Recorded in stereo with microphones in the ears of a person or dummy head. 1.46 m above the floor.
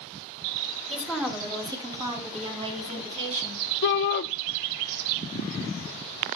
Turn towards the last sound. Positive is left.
turn(degrees=60)  # may be behind; listen again after turning